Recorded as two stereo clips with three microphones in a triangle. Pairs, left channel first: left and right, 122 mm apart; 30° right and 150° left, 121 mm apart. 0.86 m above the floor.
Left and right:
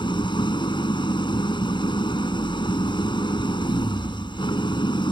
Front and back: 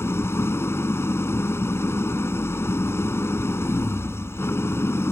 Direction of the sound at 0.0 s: 40° left.